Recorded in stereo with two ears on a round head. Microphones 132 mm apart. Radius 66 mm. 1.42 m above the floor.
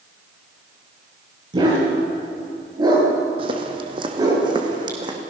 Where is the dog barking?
35° right (ahead or behind), 9 m; by 4.4 s 25° right (ahead or behind), 6.5 m.